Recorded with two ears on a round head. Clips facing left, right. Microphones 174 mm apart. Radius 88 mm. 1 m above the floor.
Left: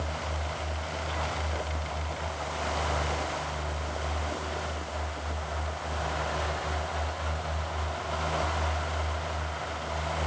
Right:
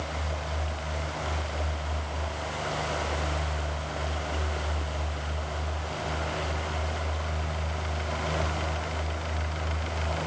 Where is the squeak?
No squeak in this recording.